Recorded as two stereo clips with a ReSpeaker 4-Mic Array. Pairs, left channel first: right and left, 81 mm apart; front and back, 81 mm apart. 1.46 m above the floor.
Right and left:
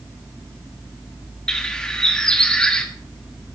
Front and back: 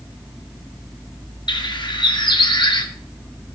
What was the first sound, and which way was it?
A bird, 10° right.